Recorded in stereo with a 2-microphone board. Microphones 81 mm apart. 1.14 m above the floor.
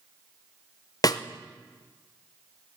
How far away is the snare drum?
About 0.7 m.